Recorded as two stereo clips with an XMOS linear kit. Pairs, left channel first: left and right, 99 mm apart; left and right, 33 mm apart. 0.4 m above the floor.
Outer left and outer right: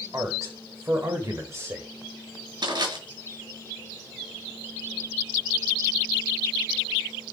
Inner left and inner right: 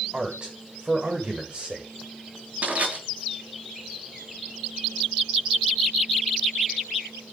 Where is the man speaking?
35° right (ahead or behind), 1.4 m.